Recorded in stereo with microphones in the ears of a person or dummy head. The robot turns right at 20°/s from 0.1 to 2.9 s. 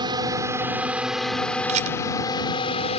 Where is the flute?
I don't hear a flute.